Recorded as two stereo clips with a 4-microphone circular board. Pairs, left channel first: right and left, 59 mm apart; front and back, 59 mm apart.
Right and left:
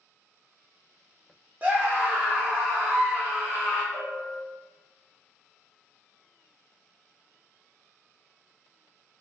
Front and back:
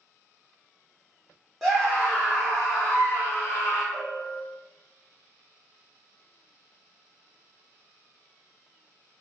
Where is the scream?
80° left, 0.7 m; by 3.8 s 20° left, 1.6 m.